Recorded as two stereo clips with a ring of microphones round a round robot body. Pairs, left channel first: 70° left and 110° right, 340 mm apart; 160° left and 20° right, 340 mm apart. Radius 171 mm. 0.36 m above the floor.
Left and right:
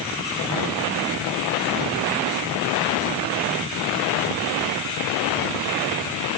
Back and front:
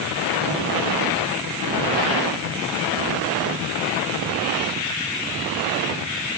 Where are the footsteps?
I don't hear footsteps.